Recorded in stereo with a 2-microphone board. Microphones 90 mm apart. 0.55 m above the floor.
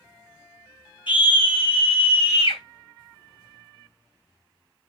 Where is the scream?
60° left (ahead or behind), 4.5 m; by 2.6 s 70° left (ahead or behind), 4 m.